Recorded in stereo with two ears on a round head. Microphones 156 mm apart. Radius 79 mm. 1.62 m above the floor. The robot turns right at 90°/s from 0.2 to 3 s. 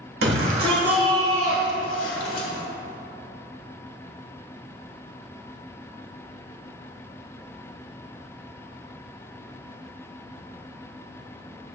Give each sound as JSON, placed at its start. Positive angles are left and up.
{"t": 0.2, "sound": "a shout", "azimuth_deg": -70, "distance_m": 1.8}